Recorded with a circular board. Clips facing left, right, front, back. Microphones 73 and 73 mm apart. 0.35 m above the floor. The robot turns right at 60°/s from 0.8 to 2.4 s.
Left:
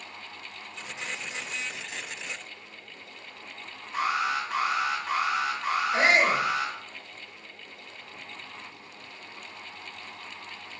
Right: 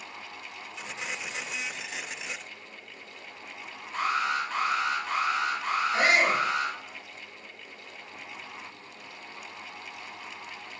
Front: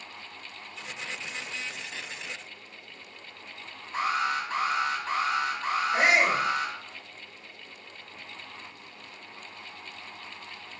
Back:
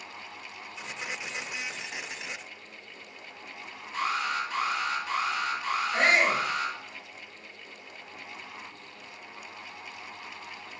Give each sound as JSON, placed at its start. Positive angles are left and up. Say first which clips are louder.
{"t": 3.9, "sound": "an alarm", "louder": "even, front 2 dB", "azimuth_deg": 10, "distance_m": 1.7}
{"t": 5.9, "sound": "a shout", "louder": "left 1 dB, front 1 dB", "azimuth_deg": 70, "distance_m": 1.1}